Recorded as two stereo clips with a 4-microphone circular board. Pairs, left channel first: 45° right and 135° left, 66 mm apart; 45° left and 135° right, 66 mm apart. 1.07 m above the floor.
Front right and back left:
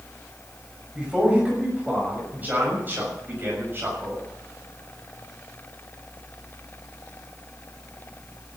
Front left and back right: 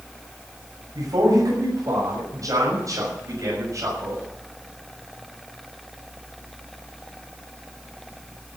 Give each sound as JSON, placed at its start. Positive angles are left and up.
{"t": 0.9, "sound": "a man speaking", "azimuth_deg": -155, "distance_m": 6.5}